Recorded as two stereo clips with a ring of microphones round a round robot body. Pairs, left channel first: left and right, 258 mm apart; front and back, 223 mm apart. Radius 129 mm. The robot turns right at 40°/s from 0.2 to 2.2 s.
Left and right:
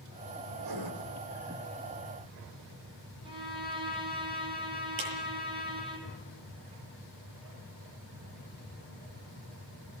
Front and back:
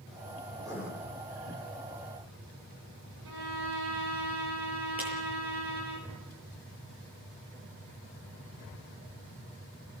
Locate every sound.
0.6 s writing: 105° right, 4.5 m; by 0.9 s 90° right, 4.5 m
3.2 s a violin: 165° right, 5 m
5.0 s a clap: 95° right, 8 m